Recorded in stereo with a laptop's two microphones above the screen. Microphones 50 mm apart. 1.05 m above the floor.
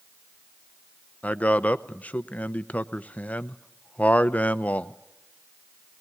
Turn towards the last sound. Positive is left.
turn(degrees=30)  # may be behind; listen again after turning